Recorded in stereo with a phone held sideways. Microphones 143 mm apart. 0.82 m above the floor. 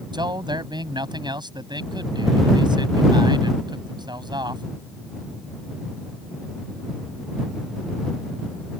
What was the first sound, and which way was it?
A man speaking, 30° right (ahead or behind).